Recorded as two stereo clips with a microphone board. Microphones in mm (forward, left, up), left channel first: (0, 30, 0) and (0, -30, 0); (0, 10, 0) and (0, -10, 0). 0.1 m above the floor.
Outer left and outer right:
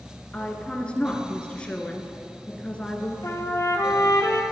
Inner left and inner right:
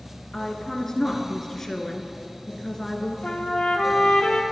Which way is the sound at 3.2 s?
60° left (ahead or behind).